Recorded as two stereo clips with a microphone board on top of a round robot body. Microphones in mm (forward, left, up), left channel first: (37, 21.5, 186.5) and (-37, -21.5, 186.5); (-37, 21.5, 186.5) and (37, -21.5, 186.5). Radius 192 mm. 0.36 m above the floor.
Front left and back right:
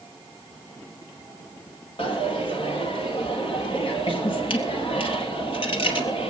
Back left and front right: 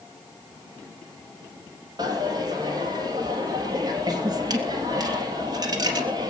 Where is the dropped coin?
15° left, 3.5 m.